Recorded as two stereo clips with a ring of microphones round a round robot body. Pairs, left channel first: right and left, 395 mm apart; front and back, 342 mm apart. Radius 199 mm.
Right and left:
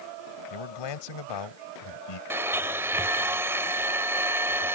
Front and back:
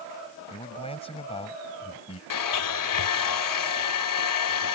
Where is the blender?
5° left.